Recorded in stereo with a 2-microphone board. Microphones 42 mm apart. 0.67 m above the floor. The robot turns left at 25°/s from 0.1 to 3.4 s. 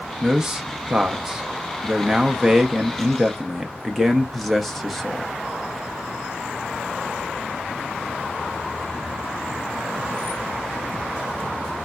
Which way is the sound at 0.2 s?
20° right (ahead or behind).